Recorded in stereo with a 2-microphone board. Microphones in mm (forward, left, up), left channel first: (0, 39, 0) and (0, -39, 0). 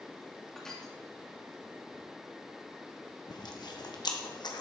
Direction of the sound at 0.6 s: 5° left (ahead or behind).